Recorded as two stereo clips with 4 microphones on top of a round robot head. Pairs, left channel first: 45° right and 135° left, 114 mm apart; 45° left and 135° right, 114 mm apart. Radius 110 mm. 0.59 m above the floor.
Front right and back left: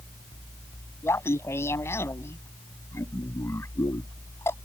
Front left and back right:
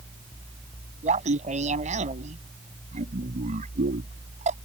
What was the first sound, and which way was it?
Laughter, 115° right.